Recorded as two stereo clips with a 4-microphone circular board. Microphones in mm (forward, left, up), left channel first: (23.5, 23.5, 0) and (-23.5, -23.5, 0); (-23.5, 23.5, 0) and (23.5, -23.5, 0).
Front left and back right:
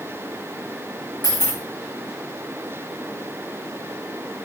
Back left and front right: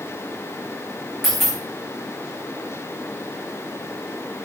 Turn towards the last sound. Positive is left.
turn(degrees=45)